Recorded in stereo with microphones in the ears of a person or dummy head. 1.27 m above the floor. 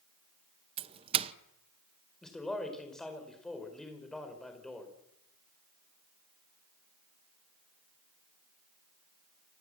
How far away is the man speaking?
About 4.5 m.